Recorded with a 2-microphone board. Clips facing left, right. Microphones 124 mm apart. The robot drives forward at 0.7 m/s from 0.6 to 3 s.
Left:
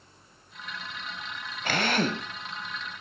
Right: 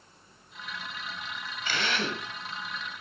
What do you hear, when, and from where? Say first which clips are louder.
1.6 s a drill: left 5 dB; 50° left (ahead or behind), 1.5 m; by 2.3 s 40° left (ahead or behind), 1.8 m